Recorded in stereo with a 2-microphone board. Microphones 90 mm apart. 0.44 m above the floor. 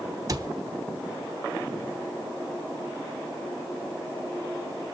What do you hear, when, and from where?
0.3 s a cupboard door: 40° right (ahead or behind), 0.8 m